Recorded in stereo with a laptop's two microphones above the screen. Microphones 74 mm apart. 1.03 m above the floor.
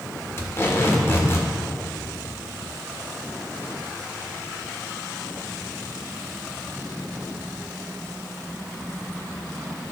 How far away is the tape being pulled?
About 1.4 m.